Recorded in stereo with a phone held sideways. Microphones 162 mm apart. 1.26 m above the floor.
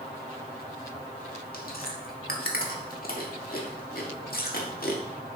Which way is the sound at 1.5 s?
65° left (ahead or behind).